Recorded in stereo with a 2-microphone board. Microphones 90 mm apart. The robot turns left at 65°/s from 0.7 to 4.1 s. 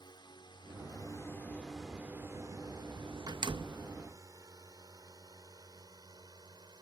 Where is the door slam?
50° right; by 3.9 s 85° right.